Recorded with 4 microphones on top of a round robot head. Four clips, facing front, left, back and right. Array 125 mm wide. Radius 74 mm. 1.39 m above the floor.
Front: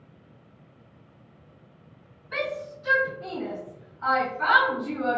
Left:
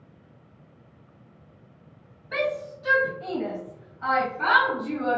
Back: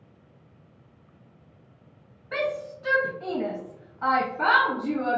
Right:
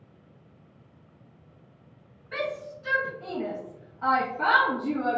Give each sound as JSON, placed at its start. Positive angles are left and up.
{"t": 2.3, "sound": "a shout", "azimuth_deg": 150, "distance_m": 1.2}